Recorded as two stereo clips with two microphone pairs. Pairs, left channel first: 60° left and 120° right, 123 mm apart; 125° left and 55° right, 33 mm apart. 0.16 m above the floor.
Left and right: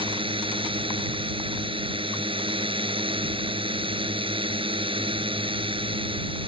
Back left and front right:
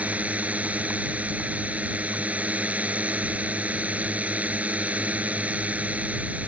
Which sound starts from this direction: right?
A drone, at 0.0 s.